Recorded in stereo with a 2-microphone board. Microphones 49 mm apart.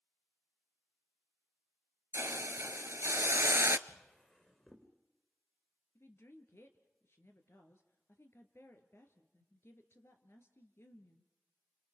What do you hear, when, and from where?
2.1 s a hiss: 65° right (ahead or behind), 0.6 m
3.9 s a drawer: 20° left (ahead or behind), 3.5 m
6.0 s a woman speaking: 60° left (ahead or behind), 2.5 m